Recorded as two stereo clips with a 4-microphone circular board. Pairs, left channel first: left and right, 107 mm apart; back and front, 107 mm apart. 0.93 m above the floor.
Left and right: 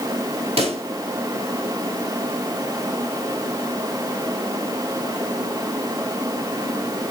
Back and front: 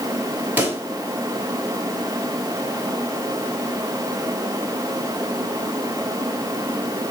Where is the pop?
75° right, 3.5 m.